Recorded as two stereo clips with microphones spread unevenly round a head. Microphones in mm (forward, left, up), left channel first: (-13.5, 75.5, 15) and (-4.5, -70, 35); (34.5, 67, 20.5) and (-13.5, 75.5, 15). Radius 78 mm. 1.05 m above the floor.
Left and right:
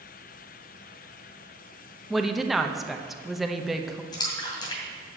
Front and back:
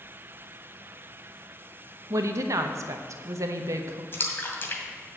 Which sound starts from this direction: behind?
A woman speaking, at 2.1 s.